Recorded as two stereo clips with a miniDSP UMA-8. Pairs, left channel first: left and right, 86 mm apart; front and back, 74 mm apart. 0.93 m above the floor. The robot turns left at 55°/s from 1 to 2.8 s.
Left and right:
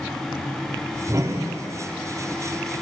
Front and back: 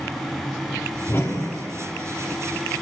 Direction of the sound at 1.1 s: 45° right.